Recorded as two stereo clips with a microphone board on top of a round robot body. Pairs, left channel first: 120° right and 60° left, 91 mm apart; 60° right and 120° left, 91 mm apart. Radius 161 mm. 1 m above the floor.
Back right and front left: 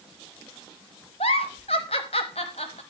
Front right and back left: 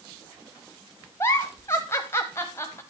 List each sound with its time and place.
1.2 s a giggle: 120° right, 0.8 m